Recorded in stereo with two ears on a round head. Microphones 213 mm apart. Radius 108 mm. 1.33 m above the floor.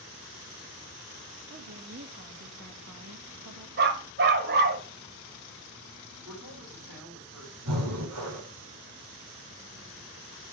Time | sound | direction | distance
1.5 | a woman speaking | 40° right (ahead or behind) | 2 m
3.8 | a dog barking | 45° right (ahead or behind) | 1.5 m
6.2 | a man speaking | 55° right (ahead or behind) | 5.5 m
7.7 | breathing | 70° right (ahead or behind) | 3 m